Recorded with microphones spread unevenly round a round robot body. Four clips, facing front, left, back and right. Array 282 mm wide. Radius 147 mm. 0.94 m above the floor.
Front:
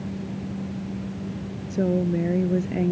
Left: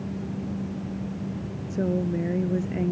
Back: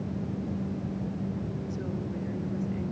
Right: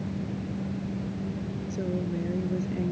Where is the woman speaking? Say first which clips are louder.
Left 6 dB, front 11 dB; 20° left; by 2.9 s 15° left.